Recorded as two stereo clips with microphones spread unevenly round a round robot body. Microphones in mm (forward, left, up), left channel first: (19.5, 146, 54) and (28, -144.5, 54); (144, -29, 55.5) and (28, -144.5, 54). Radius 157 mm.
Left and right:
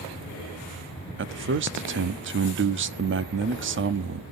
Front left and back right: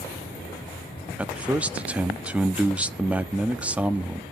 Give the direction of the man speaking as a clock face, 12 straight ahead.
2 o'clock.